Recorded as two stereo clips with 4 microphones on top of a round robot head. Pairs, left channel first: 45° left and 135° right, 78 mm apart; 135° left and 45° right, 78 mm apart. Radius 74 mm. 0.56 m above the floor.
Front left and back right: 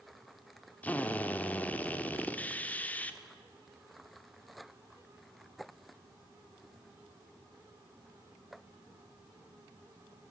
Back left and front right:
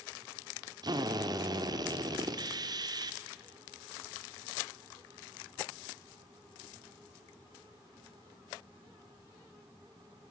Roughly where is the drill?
Ahead right.